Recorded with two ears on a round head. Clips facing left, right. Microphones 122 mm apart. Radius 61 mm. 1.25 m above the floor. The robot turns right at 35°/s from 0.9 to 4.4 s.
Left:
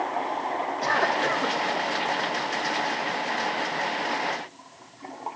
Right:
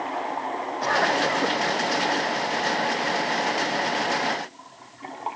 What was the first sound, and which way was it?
A cough, centre (ahead or behind).